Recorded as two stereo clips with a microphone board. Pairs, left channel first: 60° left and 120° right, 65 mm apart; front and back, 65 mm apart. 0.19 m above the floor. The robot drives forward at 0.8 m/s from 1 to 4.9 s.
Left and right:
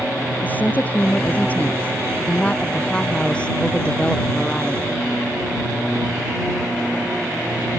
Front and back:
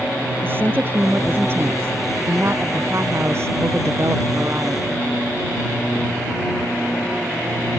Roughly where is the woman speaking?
Behind left.